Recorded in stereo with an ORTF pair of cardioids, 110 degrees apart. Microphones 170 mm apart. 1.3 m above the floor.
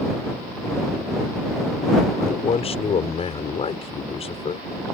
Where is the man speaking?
35° left.